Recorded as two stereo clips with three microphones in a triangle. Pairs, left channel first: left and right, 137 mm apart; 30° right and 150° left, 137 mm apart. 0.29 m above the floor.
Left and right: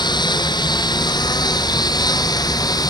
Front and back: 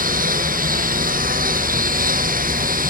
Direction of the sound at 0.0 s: 150° left.